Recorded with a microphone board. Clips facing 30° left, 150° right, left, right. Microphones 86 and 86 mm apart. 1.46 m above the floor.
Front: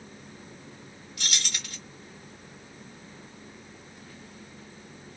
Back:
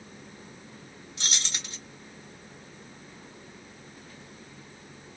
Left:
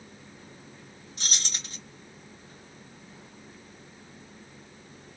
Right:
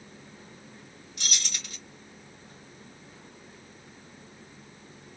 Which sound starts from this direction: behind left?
Keys jangling, at 1.2 s.